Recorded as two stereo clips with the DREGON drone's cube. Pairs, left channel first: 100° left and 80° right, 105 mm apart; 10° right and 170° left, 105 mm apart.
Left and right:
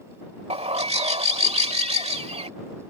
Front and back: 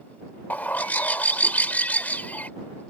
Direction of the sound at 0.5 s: 85° right.